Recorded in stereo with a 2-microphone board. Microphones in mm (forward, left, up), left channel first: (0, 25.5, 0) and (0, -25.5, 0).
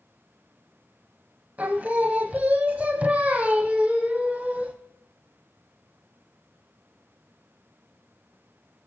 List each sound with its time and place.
1.6 s singing: 30° right (ahead or behind), 0.8 m